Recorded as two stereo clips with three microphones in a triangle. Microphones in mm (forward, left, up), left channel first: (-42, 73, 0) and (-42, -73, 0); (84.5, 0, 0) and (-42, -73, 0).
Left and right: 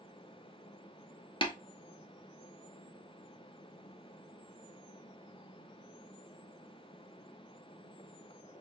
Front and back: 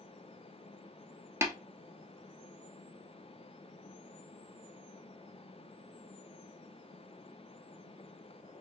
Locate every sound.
1.4 s tapping: 140° left, 1.1 m